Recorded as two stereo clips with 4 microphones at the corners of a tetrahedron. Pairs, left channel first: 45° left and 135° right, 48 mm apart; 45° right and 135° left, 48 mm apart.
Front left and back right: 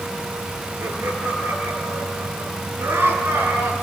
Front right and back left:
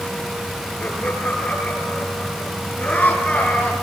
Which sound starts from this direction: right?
Laughter, at 0.8 s.